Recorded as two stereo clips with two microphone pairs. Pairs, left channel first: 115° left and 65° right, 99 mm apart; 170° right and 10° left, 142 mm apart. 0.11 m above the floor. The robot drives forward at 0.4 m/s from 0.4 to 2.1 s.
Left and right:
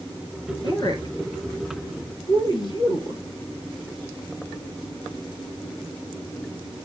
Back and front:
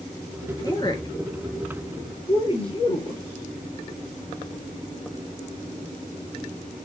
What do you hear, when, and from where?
0.6 s a woman speaking: 135° left, 2.5 m; by 3.2 s 150° left, 2.5 m